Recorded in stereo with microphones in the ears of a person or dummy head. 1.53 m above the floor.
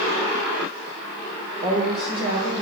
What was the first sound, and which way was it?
A woman speaking, 25° right (ahead or behind).